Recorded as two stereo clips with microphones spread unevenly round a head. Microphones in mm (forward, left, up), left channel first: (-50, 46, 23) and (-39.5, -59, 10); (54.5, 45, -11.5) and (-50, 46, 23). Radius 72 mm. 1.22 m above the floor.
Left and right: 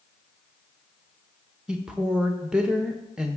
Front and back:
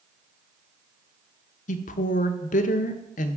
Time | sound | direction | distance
1.7 | a woman speaking | straight ahead | 0.8 m